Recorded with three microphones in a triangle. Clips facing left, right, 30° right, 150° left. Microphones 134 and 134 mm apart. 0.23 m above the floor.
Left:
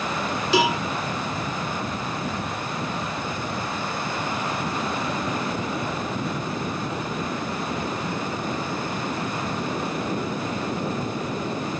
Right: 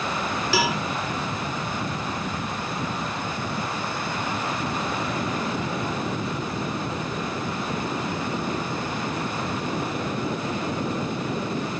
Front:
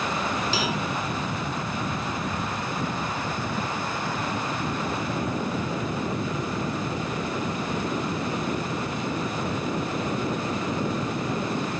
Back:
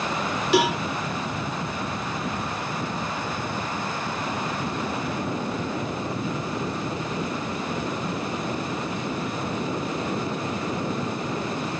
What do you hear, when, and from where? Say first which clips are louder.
0.5 s a cowbell: left 4 dB, back 7 dB; 160° left, 1.1 m